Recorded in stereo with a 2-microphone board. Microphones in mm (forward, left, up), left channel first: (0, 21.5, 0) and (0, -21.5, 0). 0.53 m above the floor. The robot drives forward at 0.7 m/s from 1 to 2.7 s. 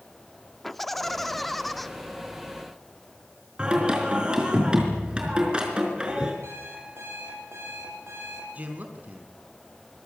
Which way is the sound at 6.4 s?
75° right (ahead or behind).